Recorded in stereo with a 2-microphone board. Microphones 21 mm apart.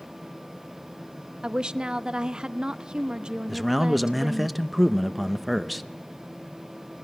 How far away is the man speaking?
About 0.6 m.